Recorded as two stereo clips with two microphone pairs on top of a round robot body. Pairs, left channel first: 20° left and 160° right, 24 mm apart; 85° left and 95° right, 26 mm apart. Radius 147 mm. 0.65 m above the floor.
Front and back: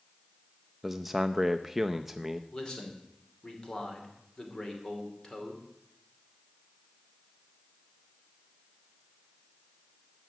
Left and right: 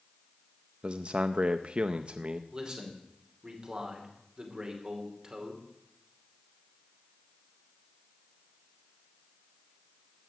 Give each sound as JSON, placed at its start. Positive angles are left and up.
{"t": 0.8, "sound": "a man speaking", "azimuth_deg": -80, "distance_m": 0.7}
{"t": 2.5, "sound": "a man speaking", "azimuth_deg": -40, "distance_m": 2.5}